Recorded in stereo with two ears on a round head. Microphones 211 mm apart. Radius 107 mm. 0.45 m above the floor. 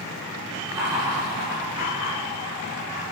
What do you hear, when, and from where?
0.7 s laughter: 15° right (ahead or behind), 8.5 m; by 3.0 s 25° right (ahead or behind), 9.5 m